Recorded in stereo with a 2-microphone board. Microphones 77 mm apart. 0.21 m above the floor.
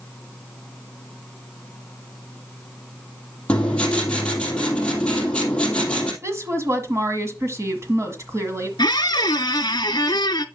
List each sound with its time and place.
3.5 s writing: 15° left (ahead or behind), 3 m
6.2 s a woman speaking: 40° right (ahead or behind), 1.5 m
8.8 s a squeak: 75° left (ahead or behind), 0.6 m